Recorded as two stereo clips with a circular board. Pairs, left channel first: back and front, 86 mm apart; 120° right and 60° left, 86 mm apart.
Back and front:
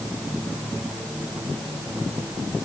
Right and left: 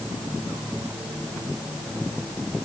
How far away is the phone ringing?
I don't hear a phone ringing.